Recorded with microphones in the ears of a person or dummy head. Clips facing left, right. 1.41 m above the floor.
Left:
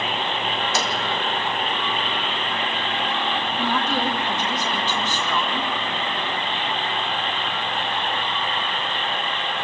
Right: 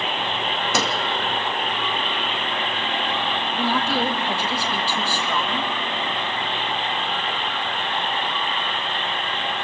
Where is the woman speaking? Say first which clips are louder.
Right 2 dB; 10° right (ahead or behind), 1.5 m.